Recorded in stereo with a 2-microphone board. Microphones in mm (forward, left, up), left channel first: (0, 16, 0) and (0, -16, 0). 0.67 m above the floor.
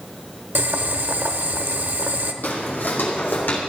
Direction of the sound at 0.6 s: 75° right (ahead or behind).